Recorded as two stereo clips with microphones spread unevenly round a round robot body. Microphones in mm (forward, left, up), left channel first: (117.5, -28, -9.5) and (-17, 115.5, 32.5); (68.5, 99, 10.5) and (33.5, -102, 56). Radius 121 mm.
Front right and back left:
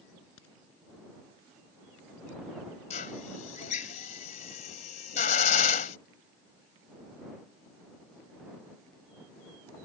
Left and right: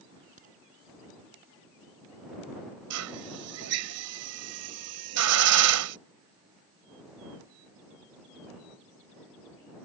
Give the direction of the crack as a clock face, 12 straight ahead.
2 o'clock.